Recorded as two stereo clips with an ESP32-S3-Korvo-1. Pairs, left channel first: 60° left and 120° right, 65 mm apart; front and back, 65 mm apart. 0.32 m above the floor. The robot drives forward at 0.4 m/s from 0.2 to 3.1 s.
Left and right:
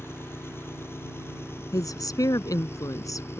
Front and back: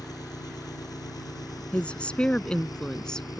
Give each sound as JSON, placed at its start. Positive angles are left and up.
{"t": 0.0, "sound": "an engine running", "azimuth_deg": 10}
{"t": 1.7, "sound": "a woman speaking", "azimuth_deg": 70}